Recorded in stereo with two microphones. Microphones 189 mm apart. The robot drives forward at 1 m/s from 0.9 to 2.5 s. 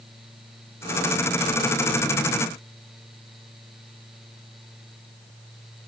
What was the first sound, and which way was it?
Only background noise.